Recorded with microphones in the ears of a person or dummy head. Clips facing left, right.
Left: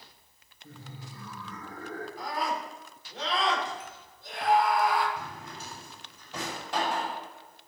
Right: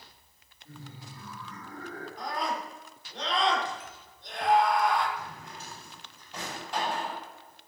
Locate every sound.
0.6 s laughter: 55° left (ahead or behind), 7 m
2.2 s a scream: 5° left (ahead or behind), 6 m
5.2 s a drawer: 70° left (ahead or behind), 5.5 m